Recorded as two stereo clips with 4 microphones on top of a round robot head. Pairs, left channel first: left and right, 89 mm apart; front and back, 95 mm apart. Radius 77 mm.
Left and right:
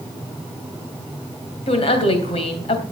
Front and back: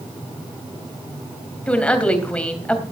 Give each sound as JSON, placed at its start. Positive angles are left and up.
{"t": 1.7, "sound": "a woman speaking", "azimuth_deg": 75, "distance_m": 3.0}